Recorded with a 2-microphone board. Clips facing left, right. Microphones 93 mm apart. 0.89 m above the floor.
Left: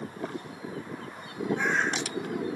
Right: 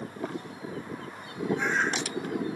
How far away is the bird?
About 4.5 m.